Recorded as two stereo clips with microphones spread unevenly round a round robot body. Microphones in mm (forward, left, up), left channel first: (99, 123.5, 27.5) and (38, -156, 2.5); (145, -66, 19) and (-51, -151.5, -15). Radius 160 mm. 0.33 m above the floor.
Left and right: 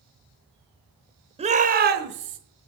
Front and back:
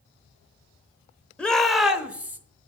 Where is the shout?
75° right, 0.9 m; by 2.4 s 85° right, 1.3 m.